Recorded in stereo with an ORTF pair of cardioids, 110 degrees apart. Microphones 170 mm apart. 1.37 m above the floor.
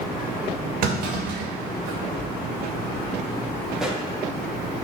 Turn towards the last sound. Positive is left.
turn(degrees=-5)